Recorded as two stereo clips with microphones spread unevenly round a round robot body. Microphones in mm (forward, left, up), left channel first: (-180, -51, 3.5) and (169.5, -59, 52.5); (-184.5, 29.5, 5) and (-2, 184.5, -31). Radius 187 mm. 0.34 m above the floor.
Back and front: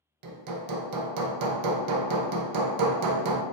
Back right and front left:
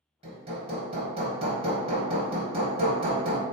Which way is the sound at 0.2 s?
15° right.